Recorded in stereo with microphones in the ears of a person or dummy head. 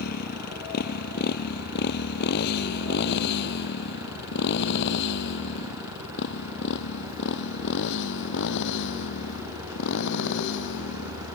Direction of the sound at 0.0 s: 55° left (ahead or behind).